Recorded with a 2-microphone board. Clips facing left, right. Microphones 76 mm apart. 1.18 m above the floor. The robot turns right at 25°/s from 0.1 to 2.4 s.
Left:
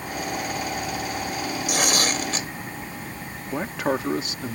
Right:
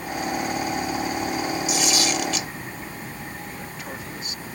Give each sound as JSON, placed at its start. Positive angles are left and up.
{"t": 1.7, "sound": "tearing paper", "side_deg": 50}
{"t": 3.5, "sound": "a man speaking", "side_deg": 75}